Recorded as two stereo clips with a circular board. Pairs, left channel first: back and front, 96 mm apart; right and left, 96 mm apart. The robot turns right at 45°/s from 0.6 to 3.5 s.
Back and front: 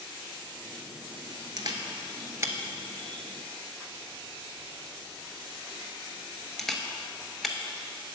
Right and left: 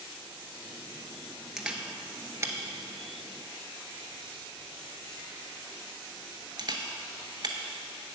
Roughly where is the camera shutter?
Ahead.